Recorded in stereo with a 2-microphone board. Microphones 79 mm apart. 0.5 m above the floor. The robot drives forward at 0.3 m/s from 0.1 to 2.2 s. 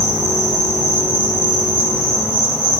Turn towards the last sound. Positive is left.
turn(degrees=-25)  # may be behind; listen again after turning